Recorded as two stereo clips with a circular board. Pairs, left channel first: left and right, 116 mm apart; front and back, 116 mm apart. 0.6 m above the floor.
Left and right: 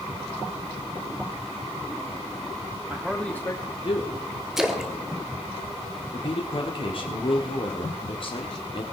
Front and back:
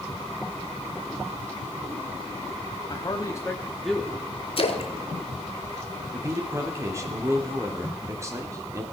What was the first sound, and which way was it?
A man speaking, 25° right.